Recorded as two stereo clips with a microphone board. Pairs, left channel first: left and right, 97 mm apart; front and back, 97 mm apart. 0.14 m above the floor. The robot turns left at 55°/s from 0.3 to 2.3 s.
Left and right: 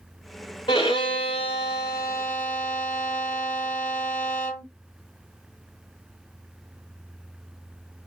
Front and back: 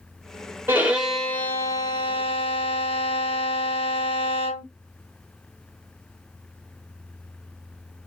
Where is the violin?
115° left, 1.0 m; by 4.7 s 25° left, 1.0 m.